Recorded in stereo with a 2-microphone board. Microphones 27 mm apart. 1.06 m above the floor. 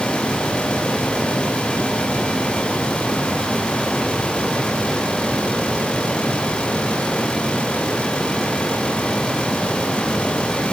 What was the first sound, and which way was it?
Only background noise.